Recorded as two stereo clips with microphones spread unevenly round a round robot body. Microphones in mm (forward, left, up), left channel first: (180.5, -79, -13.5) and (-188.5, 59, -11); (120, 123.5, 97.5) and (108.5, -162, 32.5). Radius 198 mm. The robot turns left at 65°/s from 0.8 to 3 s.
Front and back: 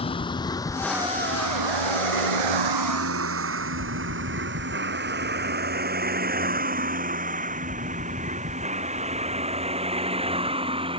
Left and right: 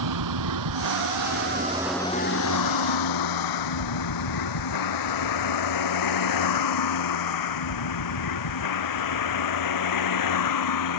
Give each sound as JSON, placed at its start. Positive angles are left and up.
{"t": 0.0, "sound": "a vehicle", "azimuth_deg": -100}